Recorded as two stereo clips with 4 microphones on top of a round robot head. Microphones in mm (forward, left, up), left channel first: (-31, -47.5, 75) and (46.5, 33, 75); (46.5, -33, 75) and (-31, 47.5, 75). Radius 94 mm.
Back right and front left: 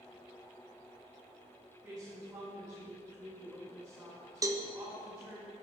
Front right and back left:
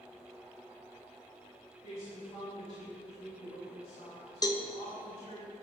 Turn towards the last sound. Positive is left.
turn(degrees=-5)